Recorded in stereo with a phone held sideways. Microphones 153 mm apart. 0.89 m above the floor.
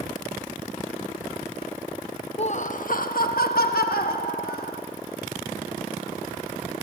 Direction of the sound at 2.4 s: 40° left (ahead or behind).